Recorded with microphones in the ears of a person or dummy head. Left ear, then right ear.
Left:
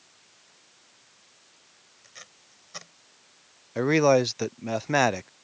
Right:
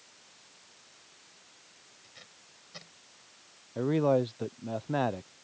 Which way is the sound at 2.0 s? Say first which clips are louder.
Left 7 dB; 45° left (ahead or behind).